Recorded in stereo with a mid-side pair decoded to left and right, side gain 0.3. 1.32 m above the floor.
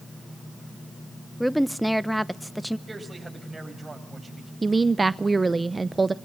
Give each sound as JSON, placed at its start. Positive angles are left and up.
{"t": 1.4, "sound": "a woman speaking", "azimuth_deg": -5, "distance_m": 1.0}
{"t": 2.9, "sound": "a man speaking", "azimuth_deg": -30, "distance_m": 7.5}
{"t": 4.6, "sound": "a woman speaking", "azimuth_deg": -35, "distance_m": 0.6}